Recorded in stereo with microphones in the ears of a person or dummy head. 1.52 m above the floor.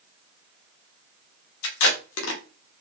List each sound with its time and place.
1.6 s tape being pulled: 75° left (ahead or behind), 1.0 m